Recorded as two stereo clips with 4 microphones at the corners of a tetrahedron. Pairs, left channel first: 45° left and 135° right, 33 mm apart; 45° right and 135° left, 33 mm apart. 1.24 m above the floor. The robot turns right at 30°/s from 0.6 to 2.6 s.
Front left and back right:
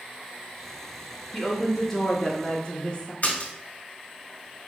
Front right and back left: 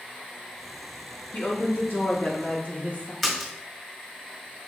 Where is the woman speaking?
50° right, 3 m; by 3.1 s 10° right, 3 m.